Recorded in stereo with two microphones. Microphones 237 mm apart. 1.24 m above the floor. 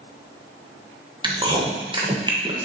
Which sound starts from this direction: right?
Chewing, at 1.2 s.